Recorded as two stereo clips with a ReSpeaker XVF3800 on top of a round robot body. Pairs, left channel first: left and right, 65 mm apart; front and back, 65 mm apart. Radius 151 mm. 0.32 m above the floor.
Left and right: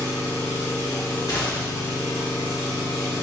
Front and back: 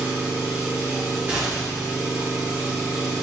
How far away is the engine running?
About 1.8 m.